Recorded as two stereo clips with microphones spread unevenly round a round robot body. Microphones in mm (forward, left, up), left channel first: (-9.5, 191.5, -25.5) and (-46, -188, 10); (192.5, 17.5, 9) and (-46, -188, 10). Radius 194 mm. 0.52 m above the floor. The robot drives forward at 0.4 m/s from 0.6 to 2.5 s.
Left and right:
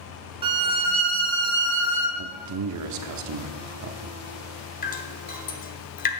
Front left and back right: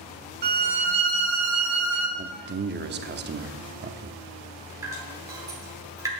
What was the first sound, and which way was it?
A violin, 170° right.